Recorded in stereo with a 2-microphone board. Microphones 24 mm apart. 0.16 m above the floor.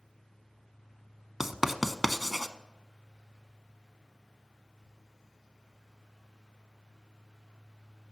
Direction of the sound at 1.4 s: 15° right (ahead or behind).